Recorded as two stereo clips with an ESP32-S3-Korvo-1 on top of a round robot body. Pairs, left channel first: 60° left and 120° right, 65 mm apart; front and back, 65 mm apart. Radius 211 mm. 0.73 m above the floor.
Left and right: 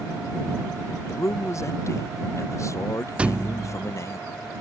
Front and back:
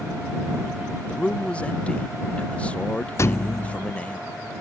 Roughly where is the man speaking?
Ahead left.